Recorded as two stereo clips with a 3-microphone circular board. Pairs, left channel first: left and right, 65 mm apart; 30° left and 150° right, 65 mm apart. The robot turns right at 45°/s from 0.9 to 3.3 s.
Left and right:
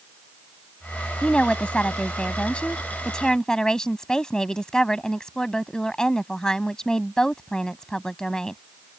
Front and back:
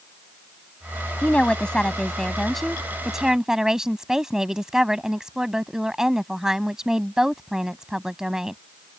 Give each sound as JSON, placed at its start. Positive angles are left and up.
{"t": 1.2, "sound": "a woman speaking", "azimuth_deg": 50}